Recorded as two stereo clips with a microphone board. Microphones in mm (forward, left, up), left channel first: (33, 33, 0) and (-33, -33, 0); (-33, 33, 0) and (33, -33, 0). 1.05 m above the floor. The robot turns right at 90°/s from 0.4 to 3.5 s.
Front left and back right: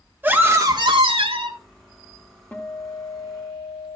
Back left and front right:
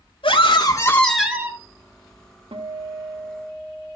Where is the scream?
155° left, 3 m; by 1.6 s 95° right, 3 m.